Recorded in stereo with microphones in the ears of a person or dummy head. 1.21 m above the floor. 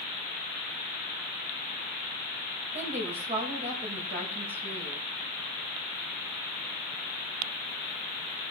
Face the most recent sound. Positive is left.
turn(degrees=-45)  # may be behind; listen again after turning